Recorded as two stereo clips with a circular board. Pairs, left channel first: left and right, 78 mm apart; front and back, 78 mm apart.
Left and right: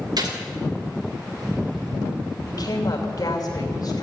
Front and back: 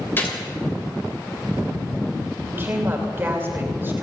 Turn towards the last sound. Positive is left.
turn(degrees=120)